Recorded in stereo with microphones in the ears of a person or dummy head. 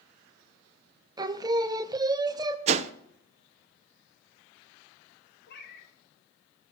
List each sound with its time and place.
1.2 s singing: 20° right (ahead or behind), 0.6 m
2.7 s a whoosh: 35° right (ahead or behind), 0.6 m
5.5 s a cat meowing: 65° left (ahead or behind), 1.9 m